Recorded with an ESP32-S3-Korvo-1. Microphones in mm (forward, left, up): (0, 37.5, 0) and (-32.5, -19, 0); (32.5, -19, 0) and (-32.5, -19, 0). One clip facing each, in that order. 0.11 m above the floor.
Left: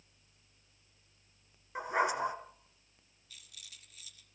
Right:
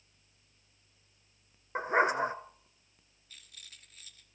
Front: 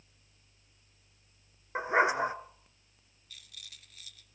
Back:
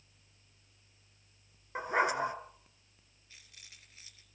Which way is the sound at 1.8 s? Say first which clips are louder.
Right 4 dB, front 4 dB; 70° right.